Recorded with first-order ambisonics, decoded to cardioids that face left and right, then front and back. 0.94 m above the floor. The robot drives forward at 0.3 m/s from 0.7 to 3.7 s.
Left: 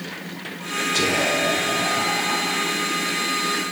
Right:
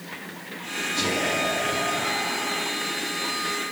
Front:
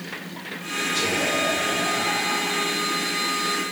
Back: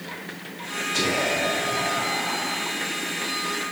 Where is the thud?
No thud in this recording.